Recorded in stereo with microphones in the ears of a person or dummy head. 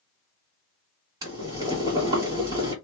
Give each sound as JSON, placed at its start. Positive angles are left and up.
{"t": 1.2, "sound": "boiling", "side_deg": -25, "distance_m": 1.7}